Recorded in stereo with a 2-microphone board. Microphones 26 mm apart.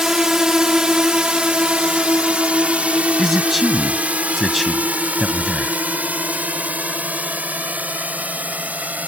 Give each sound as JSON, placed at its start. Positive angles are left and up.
{"t": 0.0, "sound": "a drone", "side_deg": -20}
{"t": 3.2, "sound": "a man speaking", "side_deg": -5}